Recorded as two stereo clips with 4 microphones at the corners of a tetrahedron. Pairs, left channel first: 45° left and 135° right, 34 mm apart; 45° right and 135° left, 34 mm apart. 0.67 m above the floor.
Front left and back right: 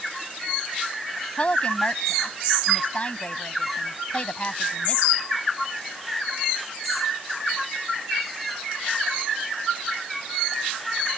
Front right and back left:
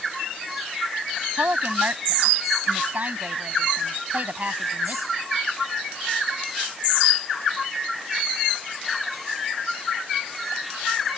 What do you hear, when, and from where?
1.4 s a woman speaking: 95° left